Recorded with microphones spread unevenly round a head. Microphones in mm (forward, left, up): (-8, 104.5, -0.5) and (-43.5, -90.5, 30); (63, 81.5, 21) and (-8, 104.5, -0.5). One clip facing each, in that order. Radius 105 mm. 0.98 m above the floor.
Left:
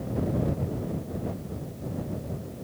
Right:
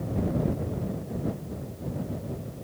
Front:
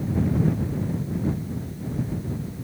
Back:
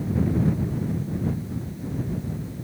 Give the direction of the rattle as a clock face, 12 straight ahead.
I don't hear a rattle.